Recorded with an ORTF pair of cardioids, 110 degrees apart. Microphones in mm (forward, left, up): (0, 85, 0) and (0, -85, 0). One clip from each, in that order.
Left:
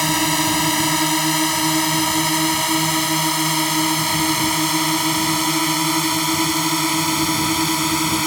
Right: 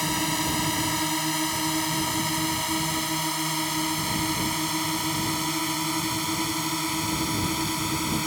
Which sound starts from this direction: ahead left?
A drone, at 0.0 s.